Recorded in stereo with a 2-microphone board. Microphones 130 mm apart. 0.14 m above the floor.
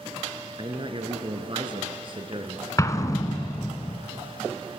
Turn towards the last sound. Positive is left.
turn(degrees=25)  # may be behind; listen again after turning